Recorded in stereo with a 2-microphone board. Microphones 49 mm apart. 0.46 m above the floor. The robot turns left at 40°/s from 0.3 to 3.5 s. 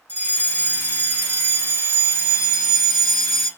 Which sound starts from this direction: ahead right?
A fire alarm, at 0.1 s.